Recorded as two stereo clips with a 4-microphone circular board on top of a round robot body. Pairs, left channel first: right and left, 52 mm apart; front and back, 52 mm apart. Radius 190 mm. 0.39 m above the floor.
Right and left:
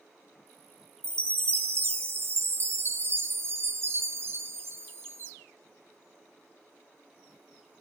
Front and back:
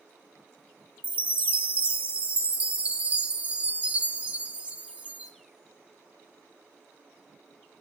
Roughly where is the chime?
Behind left.